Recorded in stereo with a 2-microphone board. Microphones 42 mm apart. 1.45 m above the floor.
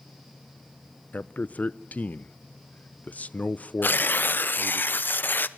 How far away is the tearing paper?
About 0.9 m.